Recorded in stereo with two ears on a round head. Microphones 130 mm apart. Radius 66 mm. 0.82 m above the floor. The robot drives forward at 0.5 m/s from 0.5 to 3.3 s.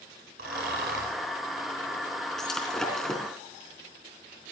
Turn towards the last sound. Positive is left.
turn(degrees=0)  # may be behind; listen again after turning